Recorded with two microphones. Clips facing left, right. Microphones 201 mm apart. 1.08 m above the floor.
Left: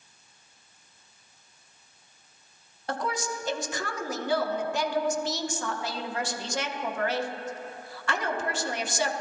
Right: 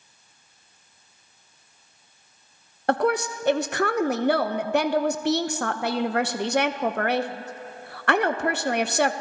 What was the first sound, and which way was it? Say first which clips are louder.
A woman speaking: right 9 dB; 60° right (ahead or behind).